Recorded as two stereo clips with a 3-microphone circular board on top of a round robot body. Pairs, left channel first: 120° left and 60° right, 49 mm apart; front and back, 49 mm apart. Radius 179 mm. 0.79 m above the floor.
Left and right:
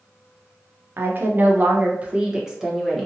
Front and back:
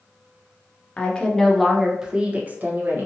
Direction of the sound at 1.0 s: 55° right.